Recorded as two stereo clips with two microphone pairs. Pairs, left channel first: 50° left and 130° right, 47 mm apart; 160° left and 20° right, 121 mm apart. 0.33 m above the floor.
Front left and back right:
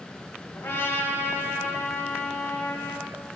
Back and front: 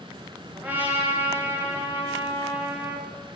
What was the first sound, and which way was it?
A trumpet, 50° left.